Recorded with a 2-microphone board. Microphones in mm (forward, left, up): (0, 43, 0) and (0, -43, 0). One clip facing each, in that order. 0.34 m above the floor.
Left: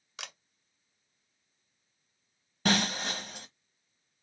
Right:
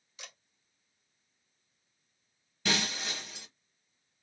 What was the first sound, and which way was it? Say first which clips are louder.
A camera shutter: left 6 dB; 85° left.